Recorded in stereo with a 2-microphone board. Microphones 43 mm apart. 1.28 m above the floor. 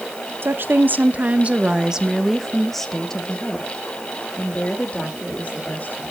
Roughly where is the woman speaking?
Right.